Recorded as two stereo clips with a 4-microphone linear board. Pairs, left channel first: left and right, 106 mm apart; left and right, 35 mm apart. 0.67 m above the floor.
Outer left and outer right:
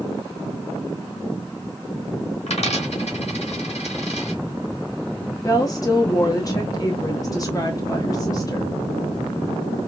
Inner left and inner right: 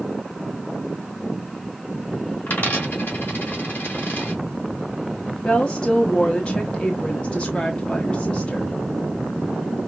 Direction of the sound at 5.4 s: 30° left (ahead or behind).